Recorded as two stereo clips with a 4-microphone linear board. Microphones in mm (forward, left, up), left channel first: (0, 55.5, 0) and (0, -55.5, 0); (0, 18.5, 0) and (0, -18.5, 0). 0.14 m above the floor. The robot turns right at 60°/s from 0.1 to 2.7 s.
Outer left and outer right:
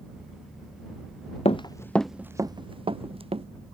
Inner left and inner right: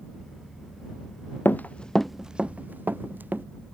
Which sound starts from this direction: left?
Running footsteps, at 1.4 s.